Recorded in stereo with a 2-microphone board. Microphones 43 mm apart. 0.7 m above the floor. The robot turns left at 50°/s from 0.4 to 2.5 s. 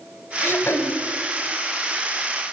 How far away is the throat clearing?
About 2.5 m.